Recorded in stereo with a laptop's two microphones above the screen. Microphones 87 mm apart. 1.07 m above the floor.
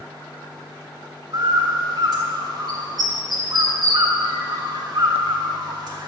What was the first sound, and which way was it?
A bird, 50° right (ahead or behind).